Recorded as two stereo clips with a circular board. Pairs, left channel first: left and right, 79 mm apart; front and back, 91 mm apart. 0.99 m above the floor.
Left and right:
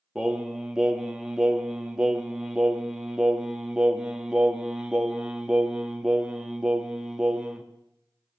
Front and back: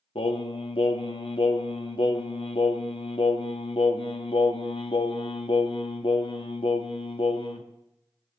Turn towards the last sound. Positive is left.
turn(degrees=-10)